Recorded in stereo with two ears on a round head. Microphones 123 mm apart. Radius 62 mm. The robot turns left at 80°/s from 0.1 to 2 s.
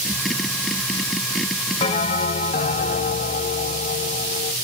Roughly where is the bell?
Left.